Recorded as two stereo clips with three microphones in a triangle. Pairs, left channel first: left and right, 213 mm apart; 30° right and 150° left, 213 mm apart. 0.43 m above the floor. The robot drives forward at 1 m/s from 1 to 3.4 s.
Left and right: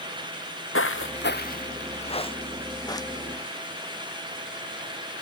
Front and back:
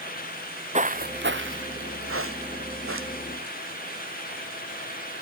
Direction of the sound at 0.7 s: 95° left.